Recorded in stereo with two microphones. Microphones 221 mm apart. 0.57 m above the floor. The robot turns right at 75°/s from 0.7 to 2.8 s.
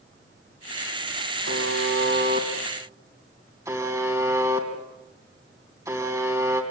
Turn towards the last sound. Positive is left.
turn(degrees=-15)